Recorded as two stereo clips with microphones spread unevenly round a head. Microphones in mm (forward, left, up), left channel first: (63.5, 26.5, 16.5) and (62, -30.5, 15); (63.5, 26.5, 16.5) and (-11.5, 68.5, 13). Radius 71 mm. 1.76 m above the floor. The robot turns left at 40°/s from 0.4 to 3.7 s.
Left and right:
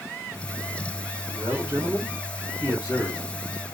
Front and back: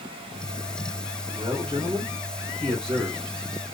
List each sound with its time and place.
1.3 s a man speaking: 135° right, 2 m; by 3.7 s 130° left, 2 m